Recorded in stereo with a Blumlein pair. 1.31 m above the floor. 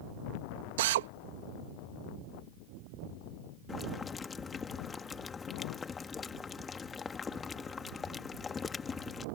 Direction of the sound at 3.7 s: 15° left.